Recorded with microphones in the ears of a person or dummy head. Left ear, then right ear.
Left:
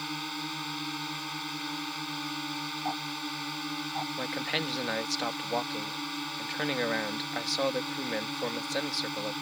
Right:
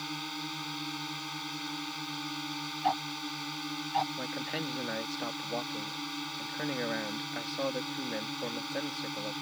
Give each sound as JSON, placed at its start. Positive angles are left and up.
{"t": 0.0, "sound": "a drone", "side_deg": 15}
{"t": 2.8, "sound": "ticking", "side_deg": -75}
{"t": 4.2, "sound": "a man speaking", "side_deg": 45}